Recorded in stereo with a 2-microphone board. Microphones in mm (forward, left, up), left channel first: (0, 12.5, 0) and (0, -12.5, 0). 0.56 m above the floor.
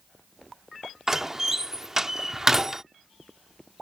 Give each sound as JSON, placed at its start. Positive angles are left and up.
{"t": 1.1, "sound": "a door slam", "side_deg": -15}